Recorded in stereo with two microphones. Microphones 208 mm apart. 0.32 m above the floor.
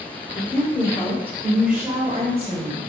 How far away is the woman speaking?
About 1.1 m.